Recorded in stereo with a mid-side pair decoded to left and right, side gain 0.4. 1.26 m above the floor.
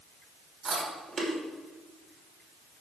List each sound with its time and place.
0.7 s chewing: 50° right, 5.5 m